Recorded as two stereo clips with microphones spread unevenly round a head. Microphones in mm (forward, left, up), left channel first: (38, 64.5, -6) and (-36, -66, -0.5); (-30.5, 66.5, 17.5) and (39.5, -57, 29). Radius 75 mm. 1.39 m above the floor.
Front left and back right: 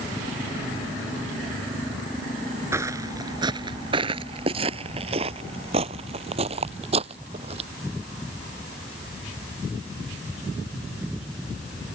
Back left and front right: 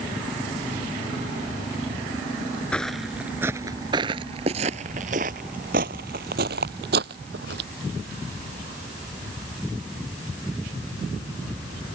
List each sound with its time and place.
2.7 s footsteps: 155° right; by 7.7 s 70° right